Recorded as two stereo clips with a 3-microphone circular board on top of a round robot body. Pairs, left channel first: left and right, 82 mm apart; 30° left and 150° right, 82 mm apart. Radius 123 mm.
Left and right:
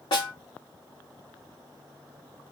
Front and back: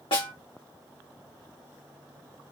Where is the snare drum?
55° left, 1.5 m.